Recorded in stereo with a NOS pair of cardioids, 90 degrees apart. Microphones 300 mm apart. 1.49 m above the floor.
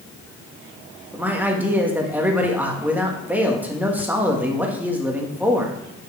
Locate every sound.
1.1 s a man speaking: 5° right, 1.7 m